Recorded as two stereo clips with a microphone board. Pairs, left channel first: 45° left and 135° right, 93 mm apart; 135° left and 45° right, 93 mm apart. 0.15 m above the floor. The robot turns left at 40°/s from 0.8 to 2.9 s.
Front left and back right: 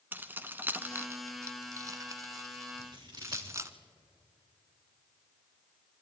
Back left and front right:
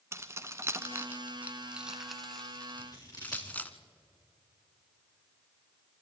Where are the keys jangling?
80° right, 0.8 m; by 3.8 s 165° right, 0.8 m.